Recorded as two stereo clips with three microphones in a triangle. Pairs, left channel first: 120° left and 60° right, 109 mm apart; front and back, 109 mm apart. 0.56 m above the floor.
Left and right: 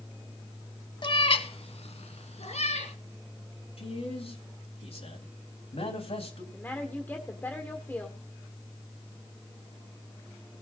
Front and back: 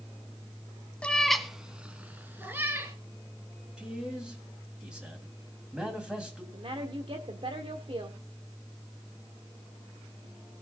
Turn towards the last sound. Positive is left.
turn(degrees=-175)